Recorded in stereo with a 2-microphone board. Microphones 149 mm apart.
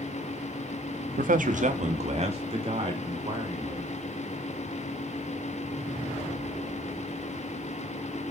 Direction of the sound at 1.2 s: 70° right (ahead or behind).